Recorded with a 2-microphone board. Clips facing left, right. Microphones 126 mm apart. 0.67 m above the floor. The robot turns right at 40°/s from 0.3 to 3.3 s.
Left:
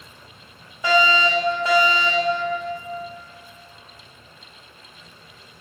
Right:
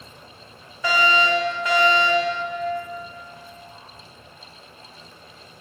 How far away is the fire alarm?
About 1.6 m.